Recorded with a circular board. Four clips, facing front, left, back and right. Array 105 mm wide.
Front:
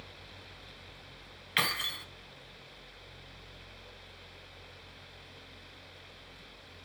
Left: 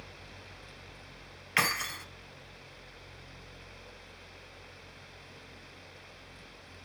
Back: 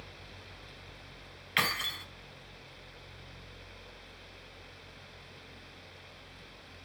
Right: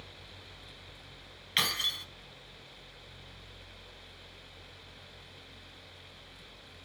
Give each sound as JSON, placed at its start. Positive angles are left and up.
{"t": 1.6, "sound": "keys jangling", "azimuth_deg": 100, "distance_m": 0.7}